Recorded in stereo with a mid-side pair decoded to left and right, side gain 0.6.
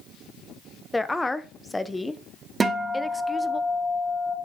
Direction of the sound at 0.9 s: 10° left.